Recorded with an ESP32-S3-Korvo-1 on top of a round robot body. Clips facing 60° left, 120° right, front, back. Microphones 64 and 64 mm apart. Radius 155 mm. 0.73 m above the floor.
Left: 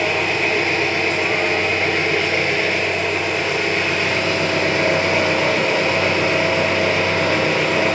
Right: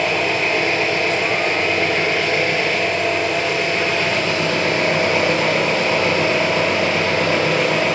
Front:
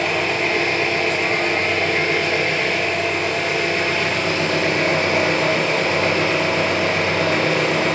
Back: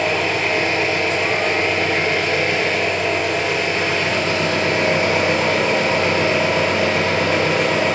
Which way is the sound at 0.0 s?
120° left.